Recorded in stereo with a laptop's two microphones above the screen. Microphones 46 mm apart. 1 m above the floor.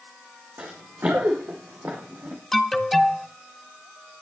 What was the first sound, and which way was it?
Running footsteps, 55° right (ahead or behind).